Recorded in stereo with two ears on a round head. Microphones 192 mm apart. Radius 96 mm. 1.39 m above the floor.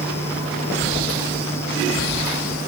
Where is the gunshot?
I don't hear a gunshot.